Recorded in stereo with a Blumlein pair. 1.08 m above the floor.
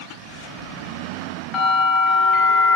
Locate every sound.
1.5 s a bell: 25° left, 1.4 m